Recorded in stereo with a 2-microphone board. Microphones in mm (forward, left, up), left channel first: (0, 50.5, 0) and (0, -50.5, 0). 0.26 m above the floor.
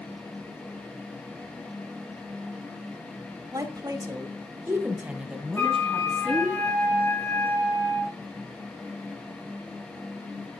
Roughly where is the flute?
Left.